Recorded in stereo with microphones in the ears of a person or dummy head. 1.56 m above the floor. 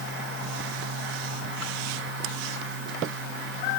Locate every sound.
Only background noise.